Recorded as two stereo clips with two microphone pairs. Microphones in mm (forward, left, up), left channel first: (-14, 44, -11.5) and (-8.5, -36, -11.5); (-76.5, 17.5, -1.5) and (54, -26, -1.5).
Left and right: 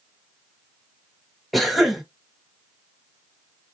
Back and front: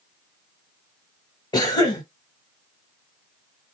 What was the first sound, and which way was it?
A cough, 175° right.